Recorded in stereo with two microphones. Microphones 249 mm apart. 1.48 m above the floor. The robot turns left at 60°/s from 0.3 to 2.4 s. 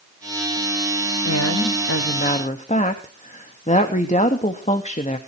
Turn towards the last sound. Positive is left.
turn(degrees=30)